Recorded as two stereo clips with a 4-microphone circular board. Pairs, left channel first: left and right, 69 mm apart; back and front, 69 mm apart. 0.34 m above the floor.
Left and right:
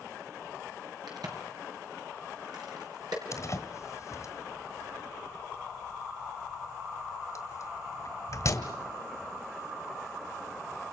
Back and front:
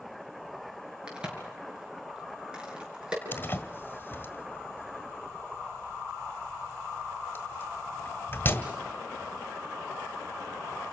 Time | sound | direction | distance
1.1 | a crack | 75° right | 6 m
3.3 | a door slam | 125° left | 1.6 m